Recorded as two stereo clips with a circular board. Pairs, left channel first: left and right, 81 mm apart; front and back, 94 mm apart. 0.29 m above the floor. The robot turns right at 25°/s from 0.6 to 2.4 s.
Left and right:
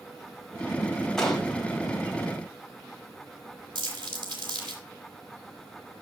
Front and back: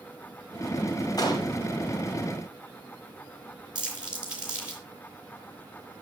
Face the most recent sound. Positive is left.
turn(degrees=-100)